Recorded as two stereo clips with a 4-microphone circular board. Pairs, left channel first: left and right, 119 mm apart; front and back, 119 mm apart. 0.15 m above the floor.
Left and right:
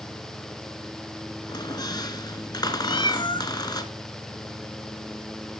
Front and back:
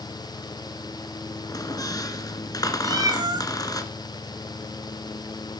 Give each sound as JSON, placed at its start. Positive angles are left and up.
{"t": 1.5, "sound": "a squeak", "azimuth_deg": 50, "distance_m": 1.1}
{"t": 2.8, "sound": "a cat meowing", "azimuth_deg": 130, "distance_m": 1.1}